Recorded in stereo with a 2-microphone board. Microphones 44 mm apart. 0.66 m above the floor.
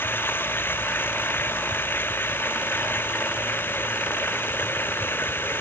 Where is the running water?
55° left (ahead or behind).